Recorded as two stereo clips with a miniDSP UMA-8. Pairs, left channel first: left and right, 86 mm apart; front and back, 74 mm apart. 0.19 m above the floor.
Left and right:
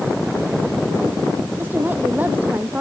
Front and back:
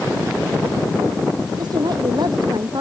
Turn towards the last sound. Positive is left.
turn(degrees=-160)